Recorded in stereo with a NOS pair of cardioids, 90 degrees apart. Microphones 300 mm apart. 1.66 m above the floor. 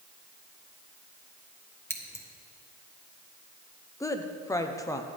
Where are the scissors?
10° left, 1.5 m.